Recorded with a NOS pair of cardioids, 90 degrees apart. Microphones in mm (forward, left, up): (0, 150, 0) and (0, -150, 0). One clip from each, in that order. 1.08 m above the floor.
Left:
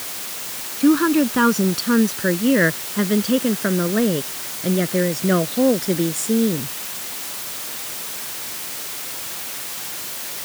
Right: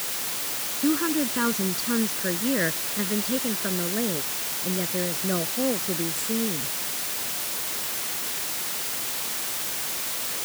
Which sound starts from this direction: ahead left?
A woman speaking, at 0.8 s.